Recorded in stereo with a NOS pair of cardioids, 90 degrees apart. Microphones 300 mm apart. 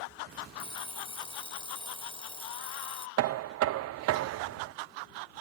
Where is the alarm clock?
20° left.